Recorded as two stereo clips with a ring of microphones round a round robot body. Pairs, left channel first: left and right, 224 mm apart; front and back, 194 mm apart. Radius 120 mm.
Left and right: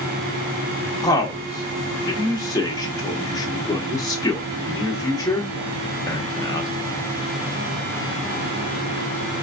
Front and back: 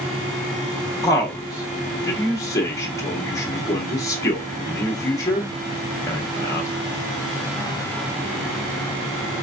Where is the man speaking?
45° left, 0.9 m.